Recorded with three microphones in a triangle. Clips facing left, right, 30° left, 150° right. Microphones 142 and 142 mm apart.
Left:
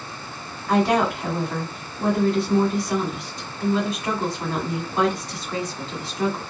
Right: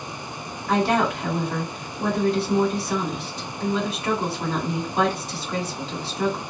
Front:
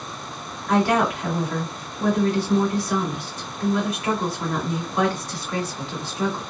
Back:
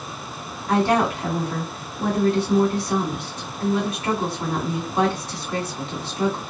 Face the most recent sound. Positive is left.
turn(degrees=-175)